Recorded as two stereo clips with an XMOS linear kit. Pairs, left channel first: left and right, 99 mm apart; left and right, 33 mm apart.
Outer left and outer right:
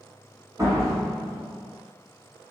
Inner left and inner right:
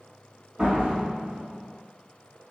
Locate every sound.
0.6 s a door slam: 35° right (ahead or behind), 1.9 m